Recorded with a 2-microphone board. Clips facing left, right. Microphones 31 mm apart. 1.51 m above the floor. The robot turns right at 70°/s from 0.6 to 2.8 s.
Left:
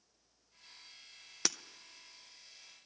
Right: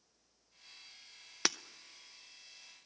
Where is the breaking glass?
20° right (ahead or behind), 0.6 m.